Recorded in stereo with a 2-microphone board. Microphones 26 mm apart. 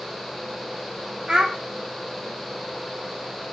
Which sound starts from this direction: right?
A child speaking, at 1.3 s.